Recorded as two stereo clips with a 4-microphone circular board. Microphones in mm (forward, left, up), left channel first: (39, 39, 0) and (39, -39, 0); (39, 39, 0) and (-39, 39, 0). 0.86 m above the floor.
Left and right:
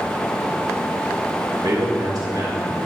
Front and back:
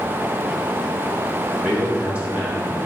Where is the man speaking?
110° right, 3 m.